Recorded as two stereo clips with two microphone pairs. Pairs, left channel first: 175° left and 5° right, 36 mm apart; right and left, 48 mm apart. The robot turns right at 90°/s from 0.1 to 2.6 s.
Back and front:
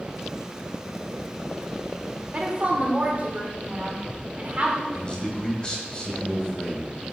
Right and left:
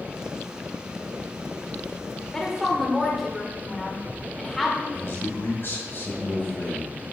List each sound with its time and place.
2.3 s a woman speaking: 25° right, 1.6 m; by 4.8 s straight ahead, 1.6 m
4.9 s a man speaking: 125° right, 2.0 m